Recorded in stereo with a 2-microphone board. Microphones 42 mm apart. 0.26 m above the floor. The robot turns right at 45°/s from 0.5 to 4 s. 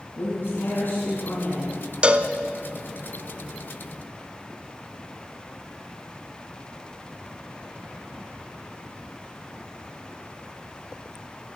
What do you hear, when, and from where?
0.2 s a woman speaking: 100° left, 2.5 m; by 1.8 s 160° left, 2.5 m
2.0 s a cowbell: 30° right (ahead or behind), 0.7 m; by 2.3 s 40° right (ahead or behind), 0.7 m